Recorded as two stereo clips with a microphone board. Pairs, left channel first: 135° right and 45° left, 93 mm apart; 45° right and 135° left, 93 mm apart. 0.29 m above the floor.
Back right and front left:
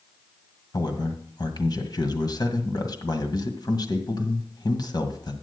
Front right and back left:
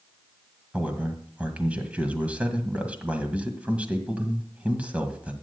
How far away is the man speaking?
About 1.7 m.